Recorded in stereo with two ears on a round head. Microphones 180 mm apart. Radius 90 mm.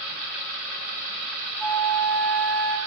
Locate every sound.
1.6 s a flute: 10° left (ahead or behind), 1.4 m